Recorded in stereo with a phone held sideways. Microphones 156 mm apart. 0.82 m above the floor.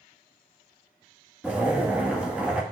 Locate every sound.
1.4 s a zipper: 10° right (ahead or behind), 1.1 m